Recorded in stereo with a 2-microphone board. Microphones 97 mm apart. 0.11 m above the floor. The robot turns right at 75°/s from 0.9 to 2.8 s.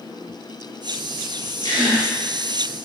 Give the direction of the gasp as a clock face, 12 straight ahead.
9 o'clock.